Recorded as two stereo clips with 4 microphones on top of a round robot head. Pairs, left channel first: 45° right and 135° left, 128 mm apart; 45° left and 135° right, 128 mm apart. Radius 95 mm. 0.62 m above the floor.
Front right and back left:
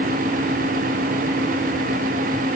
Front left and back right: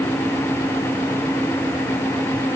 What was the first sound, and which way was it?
Only background noise.